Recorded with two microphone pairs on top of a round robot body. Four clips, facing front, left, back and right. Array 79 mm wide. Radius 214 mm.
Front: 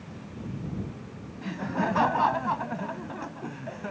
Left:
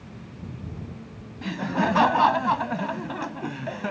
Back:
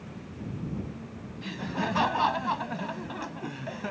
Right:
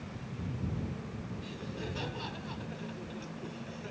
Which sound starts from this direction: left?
Laughter, at 1.4 s.